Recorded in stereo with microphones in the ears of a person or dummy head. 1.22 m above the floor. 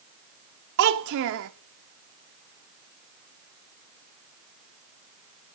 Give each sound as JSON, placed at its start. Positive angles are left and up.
{"t": 0.8, "sound": "a child speaking", "side_deg": -70, "distance_m": 0.6}